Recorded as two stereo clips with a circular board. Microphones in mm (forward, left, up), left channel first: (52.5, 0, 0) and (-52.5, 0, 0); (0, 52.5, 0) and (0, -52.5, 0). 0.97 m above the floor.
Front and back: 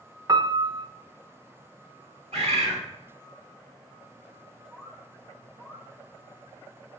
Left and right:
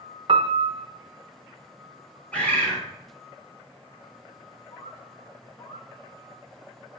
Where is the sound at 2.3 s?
170° left, 2.5 m.